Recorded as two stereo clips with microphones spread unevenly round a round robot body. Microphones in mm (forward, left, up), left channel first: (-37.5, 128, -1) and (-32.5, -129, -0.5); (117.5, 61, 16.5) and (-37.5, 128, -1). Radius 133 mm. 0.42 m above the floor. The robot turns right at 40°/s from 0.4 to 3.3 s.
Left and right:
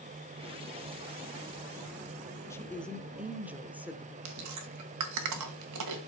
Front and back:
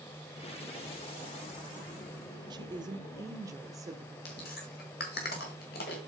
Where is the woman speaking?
160° left, 0.9 m; by 4.2 s 170° right, 0.9 m.